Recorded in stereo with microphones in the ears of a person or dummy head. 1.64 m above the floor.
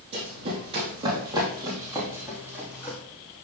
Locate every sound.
0.1 s running footsteps: 35° right (ahead or behind), 3 m; by 3.0 s 5° right (ahead or behind), 3 m